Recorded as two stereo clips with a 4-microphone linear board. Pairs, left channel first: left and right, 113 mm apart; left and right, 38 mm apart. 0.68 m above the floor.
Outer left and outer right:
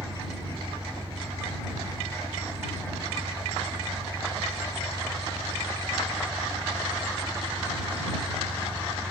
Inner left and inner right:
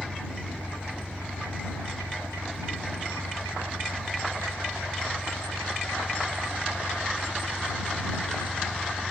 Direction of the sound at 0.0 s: 45° right (ahead or behind).